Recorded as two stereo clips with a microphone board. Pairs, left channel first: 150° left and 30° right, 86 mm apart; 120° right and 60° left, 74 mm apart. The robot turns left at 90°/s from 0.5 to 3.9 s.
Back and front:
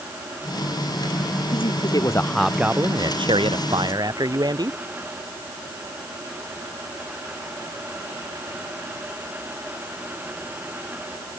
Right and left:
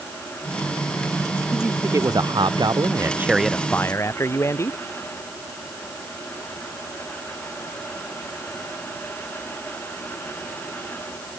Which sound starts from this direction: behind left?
A man speaking, at 1.5 s.